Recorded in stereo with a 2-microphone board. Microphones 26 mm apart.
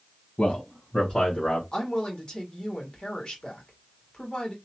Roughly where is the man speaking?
Left.